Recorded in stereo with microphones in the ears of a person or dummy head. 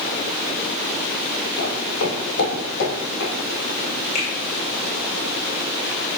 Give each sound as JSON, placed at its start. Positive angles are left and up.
{"t": 1.6, "sound": "footsteps", "side_deg": 60, "distance_m": 2.0}
{"t": 4.2, "sound": "a finger snap", "side_deg": 45, "distance_m": 3.0}